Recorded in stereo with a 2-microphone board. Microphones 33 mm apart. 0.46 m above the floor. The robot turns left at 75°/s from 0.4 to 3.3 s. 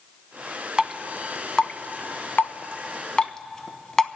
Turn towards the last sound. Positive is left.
turn(degrees=20)  # may be behind; listen again after turning